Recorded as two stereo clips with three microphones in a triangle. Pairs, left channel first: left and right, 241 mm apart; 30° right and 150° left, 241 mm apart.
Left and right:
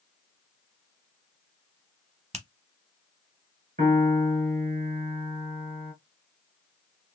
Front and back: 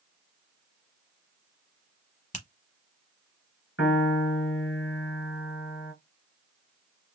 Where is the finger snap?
55° right, 0.9 m.